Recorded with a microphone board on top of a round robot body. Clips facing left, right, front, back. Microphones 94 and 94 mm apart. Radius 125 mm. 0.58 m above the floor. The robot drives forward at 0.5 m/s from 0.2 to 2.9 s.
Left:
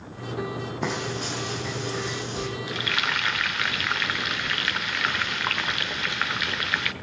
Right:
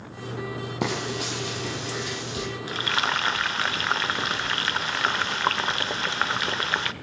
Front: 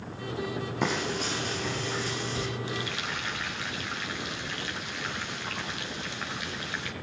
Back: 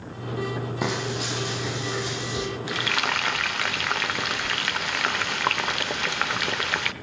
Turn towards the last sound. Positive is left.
turn(degrees=-150)